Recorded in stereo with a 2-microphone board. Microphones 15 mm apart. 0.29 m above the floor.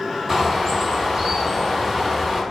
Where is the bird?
25° right (ahead or behind), 2 m.